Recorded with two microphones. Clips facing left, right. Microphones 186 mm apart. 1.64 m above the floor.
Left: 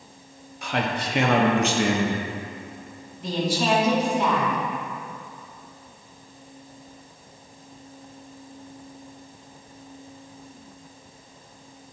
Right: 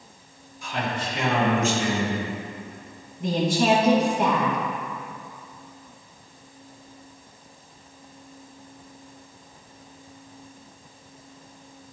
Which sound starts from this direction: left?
A man speaking, at 0.6 s.